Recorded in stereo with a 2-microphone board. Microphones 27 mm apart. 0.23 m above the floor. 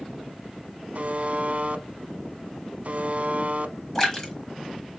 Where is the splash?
20° left (ahead or behind), 1.5 m.